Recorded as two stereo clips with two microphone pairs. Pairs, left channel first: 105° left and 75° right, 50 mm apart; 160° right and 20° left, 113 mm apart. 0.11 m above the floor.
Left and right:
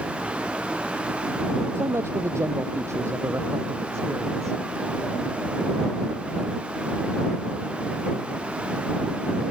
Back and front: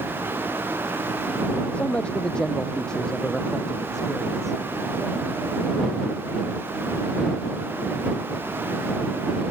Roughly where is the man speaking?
Right.